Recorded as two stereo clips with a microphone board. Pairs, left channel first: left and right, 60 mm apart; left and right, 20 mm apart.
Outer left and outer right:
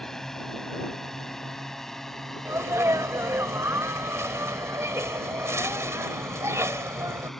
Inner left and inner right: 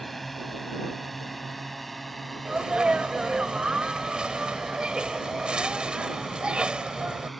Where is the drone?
5° left (ahead or behind).